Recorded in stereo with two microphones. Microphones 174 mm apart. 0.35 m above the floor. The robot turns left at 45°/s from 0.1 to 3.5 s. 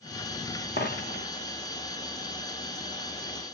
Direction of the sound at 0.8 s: 60° left (ahead or behind).